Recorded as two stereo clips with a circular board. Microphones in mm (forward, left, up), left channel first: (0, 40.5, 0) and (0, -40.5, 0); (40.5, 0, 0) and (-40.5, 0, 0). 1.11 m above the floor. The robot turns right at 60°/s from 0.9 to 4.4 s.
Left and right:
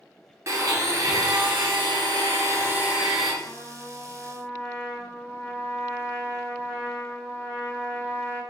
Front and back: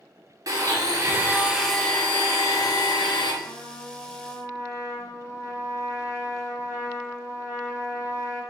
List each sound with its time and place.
0.5 s a blender: 140° right, 0.7 m; by 3.3 s 5° left, 0.7 m
3.4 s a trumpet: 25° right, 1.5 m; by 8.4 s 35° left, 1.5 m